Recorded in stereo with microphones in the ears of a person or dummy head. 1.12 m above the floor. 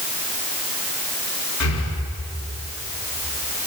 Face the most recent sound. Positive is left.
turn(degrees=85)